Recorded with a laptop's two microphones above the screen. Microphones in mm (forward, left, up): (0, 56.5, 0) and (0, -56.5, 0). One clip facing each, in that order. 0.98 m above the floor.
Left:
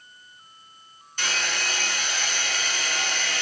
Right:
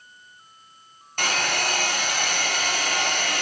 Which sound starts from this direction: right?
A hair dryer, at 1.2 s.